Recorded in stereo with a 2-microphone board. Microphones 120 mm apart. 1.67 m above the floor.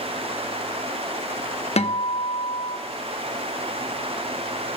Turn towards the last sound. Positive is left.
turn(degrees=60)  # may be behind; listen again after turning